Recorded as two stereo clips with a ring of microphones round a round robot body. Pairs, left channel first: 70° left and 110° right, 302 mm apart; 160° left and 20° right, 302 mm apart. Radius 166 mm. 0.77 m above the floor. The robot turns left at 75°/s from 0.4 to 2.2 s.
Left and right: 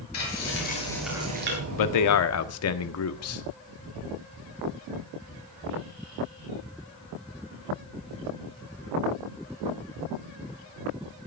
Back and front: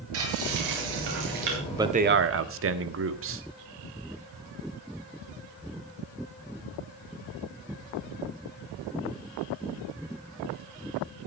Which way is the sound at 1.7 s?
65° left.